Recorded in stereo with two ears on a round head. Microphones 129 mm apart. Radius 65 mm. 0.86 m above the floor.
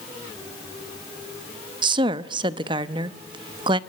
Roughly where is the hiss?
I don't hear a hiss.